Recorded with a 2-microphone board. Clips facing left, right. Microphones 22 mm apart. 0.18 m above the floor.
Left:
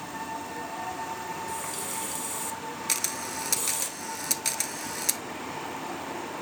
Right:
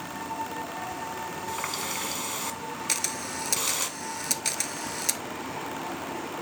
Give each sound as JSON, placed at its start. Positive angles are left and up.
{"t": 1.5, "sound": "a running tap", "side_deg": -40, "distance_m": 1.1}
{"t": 2.9, "sound": "a camera shutter", "side_deg": 0, "distance_m": 0.6}